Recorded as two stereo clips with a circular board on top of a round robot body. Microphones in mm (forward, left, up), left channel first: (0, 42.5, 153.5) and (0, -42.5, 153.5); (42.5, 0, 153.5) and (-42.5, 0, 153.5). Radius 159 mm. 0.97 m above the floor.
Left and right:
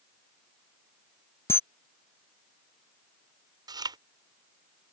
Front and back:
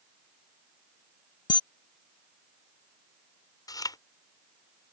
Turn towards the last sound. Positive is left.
turn(degrees=-50)